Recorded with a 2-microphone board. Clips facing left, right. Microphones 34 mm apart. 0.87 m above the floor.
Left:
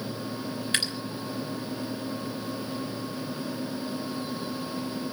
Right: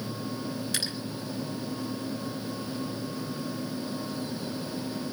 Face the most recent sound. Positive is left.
turn(degrees=45)  # may be behind; listen again after turning